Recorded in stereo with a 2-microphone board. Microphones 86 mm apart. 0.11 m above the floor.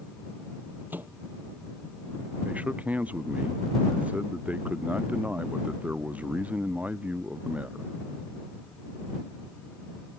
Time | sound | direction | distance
0.9 | a microwave | 20° right (ahead or behind) | ?
2.4 | a man speaking | 15° right (ahead or behind) | ?